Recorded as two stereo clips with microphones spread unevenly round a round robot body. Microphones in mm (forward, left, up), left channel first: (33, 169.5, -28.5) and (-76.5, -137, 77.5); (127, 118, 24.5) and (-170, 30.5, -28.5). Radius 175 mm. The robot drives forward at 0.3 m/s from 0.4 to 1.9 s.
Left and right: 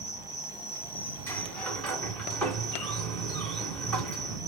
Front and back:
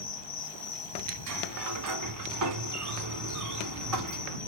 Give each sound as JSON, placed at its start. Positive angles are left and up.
{"t": 0.0, "sound": "an insect", "azimuth_deg": 40, "distance_m": 1.1}
{"t": 1.3, "sound": "a sliding door", "azimuth_deg": 165, "distance_m": 1.1}